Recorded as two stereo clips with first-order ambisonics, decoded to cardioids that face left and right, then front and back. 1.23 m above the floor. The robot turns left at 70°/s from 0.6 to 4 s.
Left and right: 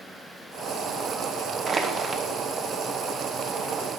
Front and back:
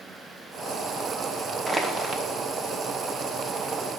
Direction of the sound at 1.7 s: 105° right.